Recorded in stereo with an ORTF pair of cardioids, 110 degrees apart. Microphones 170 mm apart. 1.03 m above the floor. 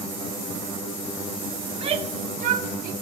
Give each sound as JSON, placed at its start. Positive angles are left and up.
{"t": 1.7, "sound": "a shout", "azimuth_deg": -30, "distance_m": 2.5}